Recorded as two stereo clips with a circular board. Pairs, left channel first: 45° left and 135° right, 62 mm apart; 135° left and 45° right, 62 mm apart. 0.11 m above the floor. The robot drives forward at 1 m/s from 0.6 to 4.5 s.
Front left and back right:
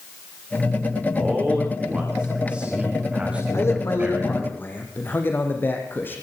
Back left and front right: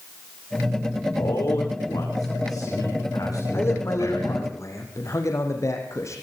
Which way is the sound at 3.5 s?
90° left.